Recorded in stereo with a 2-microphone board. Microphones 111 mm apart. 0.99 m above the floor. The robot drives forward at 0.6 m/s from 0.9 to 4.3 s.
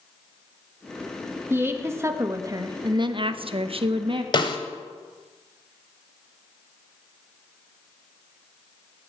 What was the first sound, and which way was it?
A woman speaking, 20° right (ahead or behind).